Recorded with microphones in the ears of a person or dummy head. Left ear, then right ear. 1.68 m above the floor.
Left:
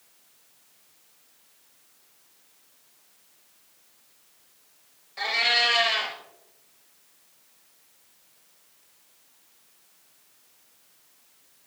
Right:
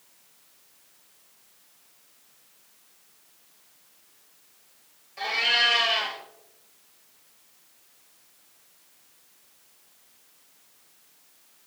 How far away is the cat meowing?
About 4 m.